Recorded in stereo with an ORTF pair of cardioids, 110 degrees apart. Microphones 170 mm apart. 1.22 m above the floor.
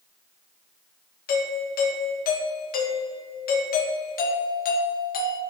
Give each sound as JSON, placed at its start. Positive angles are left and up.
{"t": 1.3, "sound": "a doorbell", "azimuth_deg": 65, "distance_m": 1.5}